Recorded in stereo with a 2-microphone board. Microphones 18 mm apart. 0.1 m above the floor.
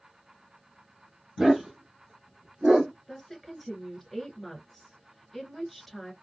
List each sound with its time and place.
1.4 s a dog barking: 35° right (ahead or behind), 1.6 m; by 2.9 s 45° right (ahead or behind), 0.8 m
3.1 s a woman speaking: 5° left (ahead or behind), 1.2 m